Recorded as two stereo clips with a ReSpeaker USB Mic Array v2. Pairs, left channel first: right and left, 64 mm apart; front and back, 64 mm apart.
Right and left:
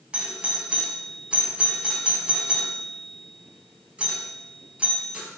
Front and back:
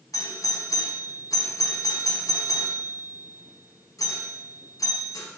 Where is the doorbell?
20° left, 5 m.